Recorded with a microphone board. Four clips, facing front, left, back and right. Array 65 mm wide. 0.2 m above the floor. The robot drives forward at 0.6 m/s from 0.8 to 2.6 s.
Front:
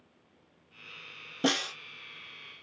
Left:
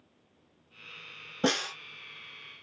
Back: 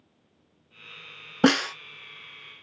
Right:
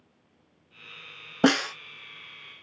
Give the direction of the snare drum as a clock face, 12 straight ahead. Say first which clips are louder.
Right 7 dB, back 9 dB; 5 o'clock.